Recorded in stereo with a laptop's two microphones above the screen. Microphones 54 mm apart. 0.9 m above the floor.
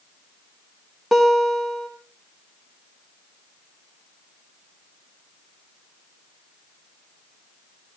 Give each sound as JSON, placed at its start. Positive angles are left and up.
{"t": 1.1, "sound": "a guitar", "side_deg": -5, "distance_m": 3.0}